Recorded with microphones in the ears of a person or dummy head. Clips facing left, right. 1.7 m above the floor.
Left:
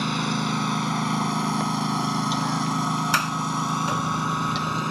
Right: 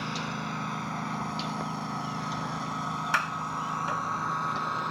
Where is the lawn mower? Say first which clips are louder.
Left 9 dB; 65° left (ahead or behind); by 4.9 s 40° left (ahead or behind).